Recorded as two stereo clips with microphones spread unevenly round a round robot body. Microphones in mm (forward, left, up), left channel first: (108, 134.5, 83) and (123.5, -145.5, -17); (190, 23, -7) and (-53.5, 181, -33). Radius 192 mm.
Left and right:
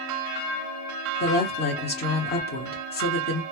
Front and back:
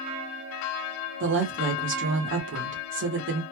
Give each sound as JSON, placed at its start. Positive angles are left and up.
{"t": 1.2, "sound": "a woman speaking", "azimuth_deg": 160, "distance_m": 0.9}